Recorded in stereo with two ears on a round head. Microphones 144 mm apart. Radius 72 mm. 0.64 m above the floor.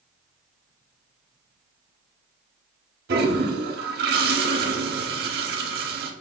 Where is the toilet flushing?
65° right (ahead or behind), 0.8 m.